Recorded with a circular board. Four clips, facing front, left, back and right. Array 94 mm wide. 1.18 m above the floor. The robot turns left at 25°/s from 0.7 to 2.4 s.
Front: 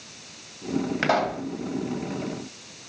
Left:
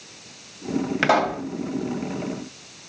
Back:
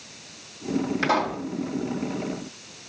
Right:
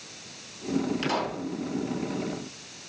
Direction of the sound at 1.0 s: 75° left.